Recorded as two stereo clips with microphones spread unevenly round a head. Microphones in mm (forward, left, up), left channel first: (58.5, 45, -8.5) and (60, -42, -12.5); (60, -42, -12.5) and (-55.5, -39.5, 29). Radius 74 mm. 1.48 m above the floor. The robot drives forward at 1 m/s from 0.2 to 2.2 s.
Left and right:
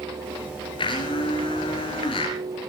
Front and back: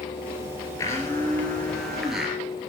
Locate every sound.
0.8 s a blender: 75° left, 3.5 m; by 2.4 s 100° left, 3.5 m